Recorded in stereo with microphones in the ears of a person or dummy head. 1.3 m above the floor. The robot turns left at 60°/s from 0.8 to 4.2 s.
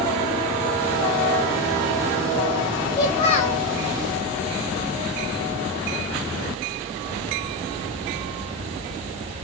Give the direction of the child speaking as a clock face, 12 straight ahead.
7 o'clock.